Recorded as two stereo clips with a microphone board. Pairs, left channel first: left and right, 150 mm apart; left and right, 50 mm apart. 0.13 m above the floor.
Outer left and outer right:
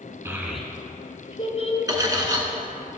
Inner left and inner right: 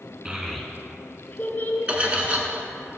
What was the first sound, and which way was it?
A child speaking, 20° right (ahead or behind).